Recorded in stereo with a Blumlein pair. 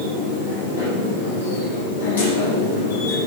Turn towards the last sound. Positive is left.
turn(degrees=70)